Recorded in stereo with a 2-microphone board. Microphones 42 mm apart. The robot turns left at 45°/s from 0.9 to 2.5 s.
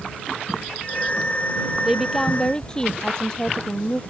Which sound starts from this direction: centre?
A woman speaking, at 1.9 s.